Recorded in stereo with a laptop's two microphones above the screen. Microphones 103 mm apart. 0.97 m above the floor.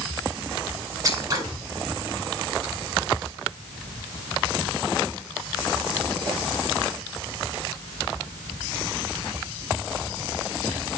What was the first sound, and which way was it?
Scissors, 35° right (ahead or behind).